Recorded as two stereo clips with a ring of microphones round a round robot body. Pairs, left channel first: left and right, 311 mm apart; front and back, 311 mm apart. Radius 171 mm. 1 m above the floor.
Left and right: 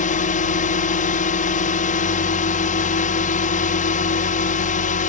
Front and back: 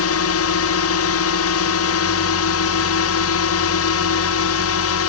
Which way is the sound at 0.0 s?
25° left.